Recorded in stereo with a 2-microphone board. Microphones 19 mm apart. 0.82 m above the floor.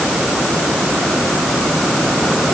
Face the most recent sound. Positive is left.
No sound to turn to.